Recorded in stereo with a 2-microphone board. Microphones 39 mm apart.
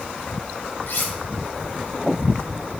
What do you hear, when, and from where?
0.9 s cutlery clinking: 70° left (ahead or behind), 1.6 m